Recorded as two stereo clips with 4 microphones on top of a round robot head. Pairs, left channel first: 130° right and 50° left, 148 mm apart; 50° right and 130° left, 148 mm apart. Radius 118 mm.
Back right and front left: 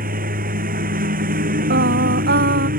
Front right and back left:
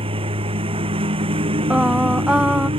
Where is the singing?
45° left.